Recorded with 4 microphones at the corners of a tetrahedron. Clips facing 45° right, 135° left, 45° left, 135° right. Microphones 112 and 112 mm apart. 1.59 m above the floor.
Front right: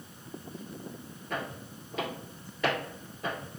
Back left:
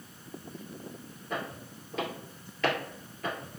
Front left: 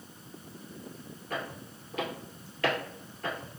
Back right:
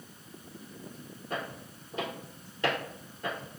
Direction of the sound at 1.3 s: 160° right.